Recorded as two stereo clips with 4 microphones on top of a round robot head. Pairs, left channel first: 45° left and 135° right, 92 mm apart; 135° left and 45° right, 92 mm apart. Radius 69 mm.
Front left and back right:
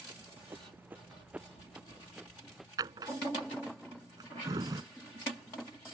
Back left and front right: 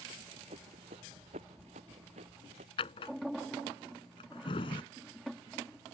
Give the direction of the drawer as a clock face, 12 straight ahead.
6 o'clock.